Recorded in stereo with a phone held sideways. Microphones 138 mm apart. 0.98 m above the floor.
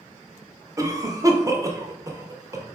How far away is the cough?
About 0.5 m.